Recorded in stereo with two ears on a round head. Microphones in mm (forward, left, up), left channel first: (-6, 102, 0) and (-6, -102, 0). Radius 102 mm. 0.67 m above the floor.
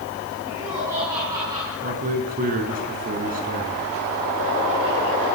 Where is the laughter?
15° right (ahead or behind), 9 m.